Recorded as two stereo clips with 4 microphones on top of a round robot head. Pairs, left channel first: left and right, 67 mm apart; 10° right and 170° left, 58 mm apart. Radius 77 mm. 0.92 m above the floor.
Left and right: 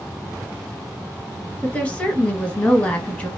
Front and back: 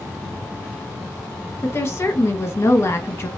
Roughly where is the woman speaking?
Ahead.